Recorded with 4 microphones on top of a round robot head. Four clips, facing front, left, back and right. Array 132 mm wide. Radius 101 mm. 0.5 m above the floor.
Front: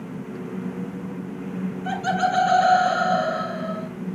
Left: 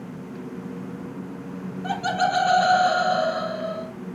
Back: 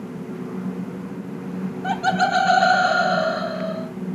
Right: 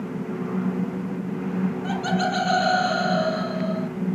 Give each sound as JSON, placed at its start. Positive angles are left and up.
{"t": 1.8, "sound": "laughter", "azimuth_deg": 175, "distance_m": 3.5}